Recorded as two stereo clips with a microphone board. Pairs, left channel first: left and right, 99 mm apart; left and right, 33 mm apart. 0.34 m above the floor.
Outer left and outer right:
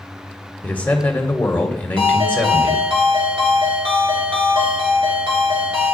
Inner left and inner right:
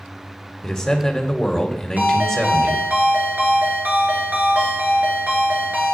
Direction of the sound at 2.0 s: 55° right (ahead or behind).